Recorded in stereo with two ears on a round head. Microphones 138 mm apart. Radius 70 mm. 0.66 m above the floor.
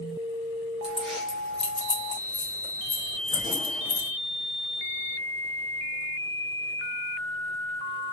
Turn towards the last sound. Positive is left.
turn(degrees=40)  # may be behind; listen again after turning